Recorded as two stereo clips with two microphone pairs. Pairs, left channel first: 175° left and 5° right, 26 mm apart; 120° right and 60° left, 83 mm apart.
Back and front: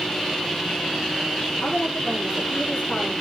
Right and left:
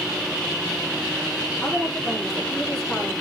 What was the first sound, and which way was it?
A woman speaking, 145° left.